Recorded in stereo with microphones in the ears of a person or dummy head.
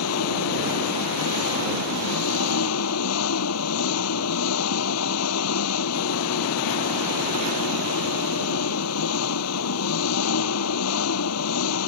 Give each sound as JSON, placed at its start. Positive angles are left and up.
{"t": 0.0, "sound": "an engine running", "side_deg": 85}